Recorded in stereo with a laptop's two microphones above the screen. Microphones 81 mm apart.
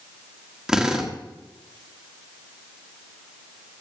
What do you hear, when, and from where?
0.7 s a drill: 10° right (ahead or behind), 1.7 m